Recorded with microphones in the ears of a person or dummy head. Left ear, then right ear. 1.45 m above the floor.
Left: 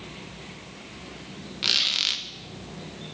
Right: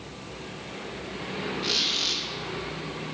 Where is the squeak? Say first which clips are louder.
Left 3 dB; 40° left (ahead or behind), 0.7 m.